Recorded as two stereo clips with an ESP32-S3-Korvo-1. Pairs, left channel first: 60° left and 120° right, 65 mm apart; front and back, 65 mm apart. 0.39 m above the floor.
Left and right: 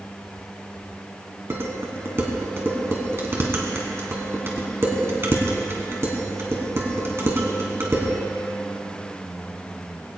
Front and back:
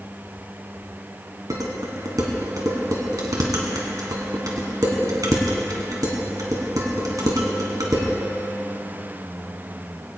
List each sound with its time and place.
1.5 s dishes clattering: 170° right, 2.5 m